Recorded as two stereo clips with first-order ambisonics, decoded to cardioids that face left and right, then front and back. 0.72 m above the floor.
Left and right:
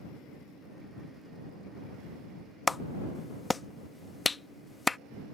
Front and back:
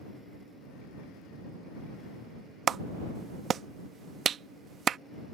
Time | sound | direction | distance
2.7 | a clap | 155° left | ?